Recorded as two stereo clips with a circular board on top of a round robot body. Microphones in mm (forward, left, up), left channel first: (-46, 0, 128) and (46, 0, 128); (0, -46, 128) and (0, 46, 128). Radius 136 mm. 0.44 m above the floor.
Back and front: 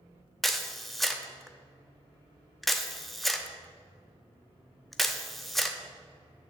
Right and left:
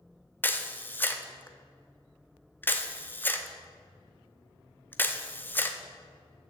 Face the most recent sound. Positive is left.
turn(degrees=-95)